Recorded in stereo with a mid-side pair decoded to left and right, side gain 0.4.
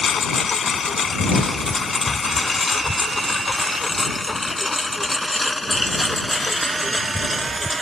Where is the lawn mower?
50° left; by 7.8 s 5° right.